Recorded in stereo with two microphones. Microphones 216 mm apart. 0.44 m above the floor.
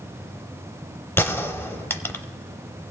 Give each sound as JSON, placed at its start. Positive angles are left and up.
{"t": 1.2, "sound": "a gunshot", "side_deg": 10, "distance_m": 0.5}